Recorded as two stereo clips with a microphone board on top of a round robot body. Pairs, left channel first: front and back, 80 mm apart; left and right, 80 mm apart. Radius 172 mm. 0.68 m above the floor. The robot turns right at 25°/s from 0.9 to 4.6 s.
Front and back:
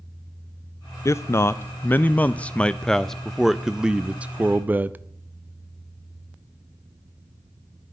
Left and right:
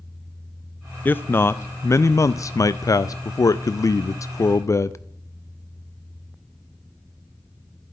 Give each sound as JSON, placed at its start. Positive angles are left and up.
{"t": 1.1, "sound": "a man speaking", "azimuth_deg": 35, "distance_m": 0.5}